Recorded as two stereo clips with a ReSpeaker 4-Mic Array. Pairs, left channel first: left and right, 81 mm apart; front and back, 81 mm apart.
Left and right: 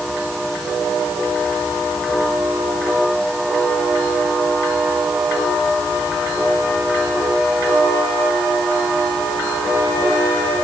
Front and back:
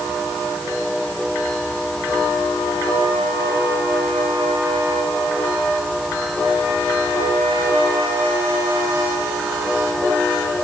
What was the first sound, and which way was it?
Only background noise.